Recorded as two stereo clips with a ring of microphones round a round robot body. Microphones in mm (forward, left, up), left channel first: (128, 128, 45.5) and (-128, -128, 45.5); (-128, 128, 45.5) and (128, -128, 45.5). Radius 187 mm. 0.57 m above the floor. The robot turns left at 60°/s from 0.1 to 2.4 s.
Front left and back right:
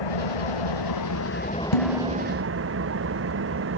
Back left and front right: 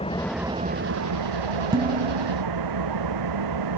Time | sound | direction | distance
0.0 | an engine running | 60° left | ?
1.7 | dishes clattering | 35° left | ?